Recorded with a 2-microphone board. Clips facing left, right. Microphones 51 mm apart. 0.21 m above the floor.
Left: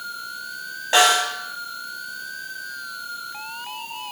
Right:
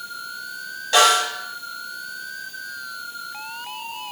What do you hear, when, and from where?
0.9 s a snare drum: 25° left (ahead or behind), 1.4 m